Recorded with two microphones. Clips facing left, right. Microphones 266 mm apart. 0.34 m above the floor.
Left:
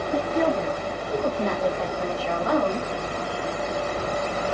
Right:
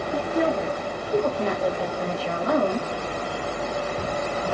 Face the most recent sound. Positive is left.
turn(degrees=-45)  # may be behind; listen again after turning